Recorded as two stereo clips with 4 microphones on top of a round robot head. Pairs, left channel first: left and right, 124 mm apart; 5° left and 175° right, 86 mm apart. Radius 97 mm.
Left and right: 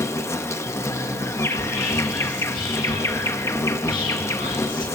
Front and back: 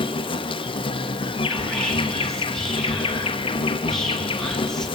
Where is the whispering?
90° left, 3 m.